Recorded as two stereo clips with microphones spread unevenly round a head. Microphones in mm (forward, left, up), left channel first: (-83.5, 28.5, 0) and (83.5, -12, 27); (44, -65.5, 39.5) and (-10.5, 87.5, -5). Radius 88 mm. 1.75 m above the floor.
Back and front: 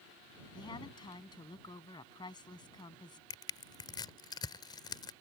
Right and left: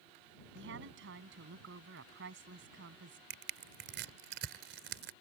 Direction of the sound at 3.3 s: 100° left.